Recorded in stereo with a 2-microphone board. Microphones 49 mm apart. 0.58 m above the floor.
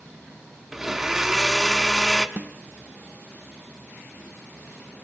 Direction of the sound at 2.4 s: 40° right (ahead or behind).